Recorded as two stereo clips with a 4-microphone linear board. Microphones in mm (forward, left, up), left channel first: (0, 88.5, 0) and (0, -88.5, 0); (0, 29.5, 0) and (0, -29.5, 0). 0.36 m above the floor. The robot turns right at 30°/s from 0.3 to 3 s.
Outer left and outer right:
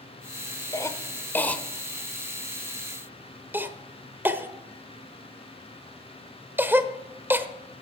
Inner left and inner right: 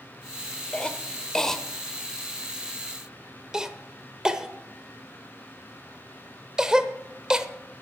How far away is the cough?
About 0.8 m.